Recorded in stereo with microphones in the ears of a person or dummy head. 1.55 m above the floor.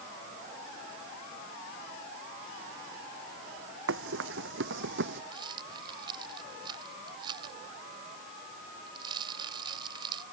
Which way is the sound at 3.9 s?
75° right (ahead or behind).